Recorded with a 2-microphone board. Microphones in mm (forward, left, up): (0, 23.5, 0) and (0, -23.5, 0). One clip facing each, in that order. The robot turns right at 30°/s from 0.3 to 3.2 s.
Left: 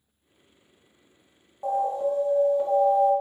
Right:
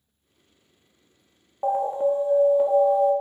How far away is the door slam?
I don't hear a door slam.